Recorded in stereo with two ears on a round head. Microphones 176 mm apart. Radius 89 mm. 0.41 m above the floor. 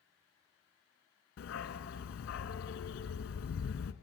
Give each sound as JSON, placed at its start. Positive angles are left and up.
{"t": 1.4, "sound": "a dog barking", "side_deg": 80, "distance_m": 1.2}